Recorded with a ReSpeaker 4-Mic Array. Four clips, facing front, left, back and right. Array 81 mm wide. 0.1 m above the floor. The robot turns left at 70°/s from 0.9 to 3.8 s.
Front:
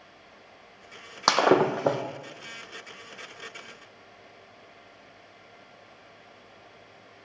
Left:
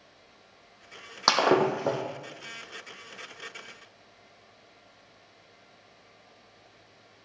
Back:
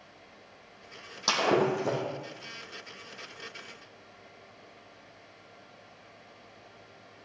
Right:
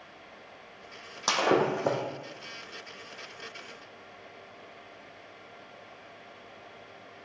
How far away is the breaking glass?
About 1.9 m.